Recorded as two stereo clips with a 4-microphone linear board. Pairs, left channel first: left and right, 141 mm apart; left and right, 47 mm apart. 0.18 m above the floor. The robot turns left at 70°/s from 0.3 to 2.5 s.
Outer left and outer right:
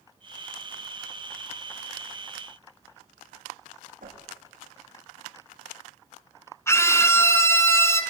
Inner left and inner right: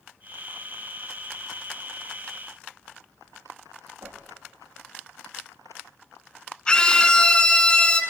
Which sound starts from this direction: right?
A whoosh, at 4.0 s.